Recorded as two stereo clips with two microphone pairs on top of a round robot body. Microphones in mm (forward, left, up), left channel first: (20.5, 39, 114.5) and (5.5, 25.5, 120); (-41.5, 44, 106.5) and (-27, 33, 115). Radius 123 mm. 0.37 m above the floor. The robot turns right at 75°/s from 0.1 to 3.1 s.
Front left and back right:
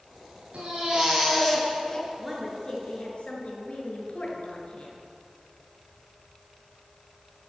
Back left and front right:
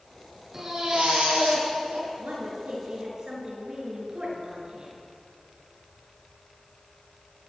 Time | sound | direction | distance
0.5 | a baby crying | 115° right | 6.5 m
2.2 | a woman speaking | 55° right | 7 m